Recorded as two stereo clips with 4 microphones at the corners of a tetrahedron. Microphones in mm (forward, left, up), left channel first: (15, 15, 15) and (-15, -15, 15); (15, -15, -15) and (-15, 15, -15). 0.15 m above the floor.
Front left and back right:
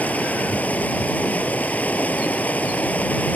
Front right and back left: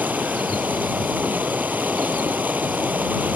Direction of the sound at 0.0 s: 95° left.